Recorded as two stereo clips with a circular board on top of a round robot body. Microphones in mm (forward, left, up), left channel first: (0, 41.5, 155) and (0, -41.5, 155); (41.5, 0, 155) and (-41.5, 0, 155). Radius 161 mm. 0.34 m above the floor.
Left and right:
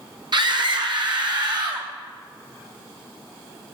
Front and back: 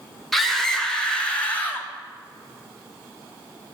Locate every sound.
0.3 s a scream: 90° right, 2.5 m; by 1.9 s 65° right, 2.5 m